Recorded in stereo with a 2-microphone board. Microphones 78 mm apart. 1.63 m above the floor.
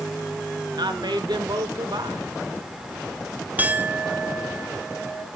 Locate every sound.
0.8 s a woman speaking: 65° right (ahead or behind), 2.5 m
3.6 s a clink: 20° right (ahead or behind), 1.0 m